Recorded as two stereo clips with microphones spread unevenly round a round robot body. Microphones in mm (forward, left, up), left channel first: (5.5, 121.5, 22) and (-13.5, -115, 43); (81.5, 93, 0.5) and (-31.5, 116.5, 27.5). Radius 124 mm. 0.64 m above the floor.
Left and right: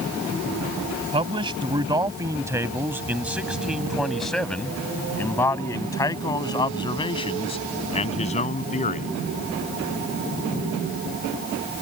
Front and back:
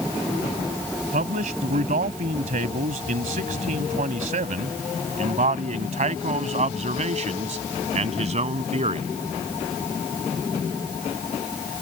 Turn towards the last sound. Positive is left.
turn(degrees=145)